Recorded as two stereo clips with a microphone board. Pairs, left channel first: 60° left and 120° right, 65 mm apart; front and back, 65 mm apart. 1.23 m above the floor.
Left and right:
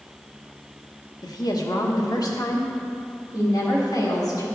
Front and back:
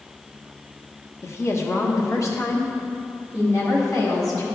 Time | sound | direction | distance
1.2 | a woman speaking | 50° left | 1.0 m